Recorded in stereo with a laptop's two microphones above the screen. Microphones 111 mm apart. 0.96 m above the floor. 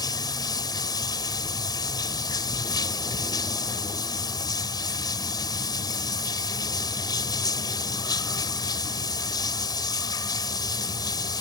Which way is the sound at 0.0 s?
40° left (ahead or behind).